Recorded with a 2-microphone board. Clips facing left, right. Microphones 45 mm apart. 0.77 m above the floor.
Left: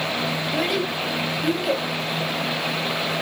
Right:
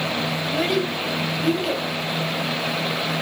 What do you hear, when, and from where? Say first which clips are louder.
0.4 s a child speaking: right 3 dB; 5° left (ahead or behind), 3.5 m